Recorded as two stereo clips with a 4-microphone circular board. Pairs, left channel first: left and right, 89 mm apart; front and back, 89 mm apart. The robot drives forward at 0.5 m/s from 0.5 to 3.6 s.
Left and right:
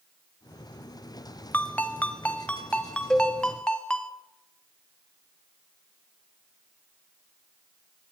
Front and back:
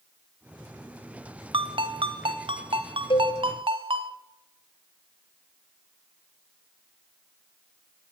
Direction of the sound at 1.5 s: 160° left.